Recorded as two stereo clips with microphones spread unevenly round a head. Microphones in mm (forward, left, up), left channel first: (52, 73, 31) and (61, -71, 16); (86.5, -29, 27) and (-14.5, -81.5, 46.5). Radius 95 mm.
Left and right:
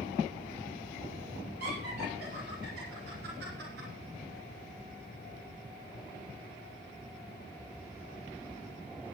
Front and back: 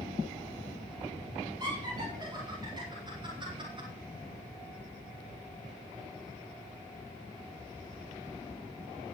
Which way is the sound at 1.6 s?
100° right.